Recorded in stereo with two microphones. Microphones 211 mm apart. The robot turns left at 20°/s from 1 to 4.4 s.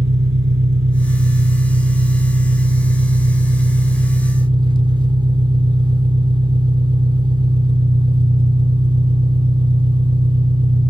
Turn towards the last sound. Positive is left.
turn(degrees=-155)